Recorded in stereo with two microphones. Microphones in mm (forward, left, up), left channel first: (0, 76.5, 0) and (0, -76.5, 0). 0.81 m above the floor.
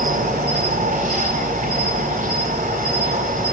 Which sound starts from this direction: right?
An insect, at 0.0 s.